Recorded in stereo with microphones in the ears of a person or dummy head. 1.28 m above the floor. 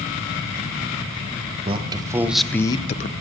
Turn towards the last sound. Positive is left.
turn(degrees=50)  # may be behind; listen again after turning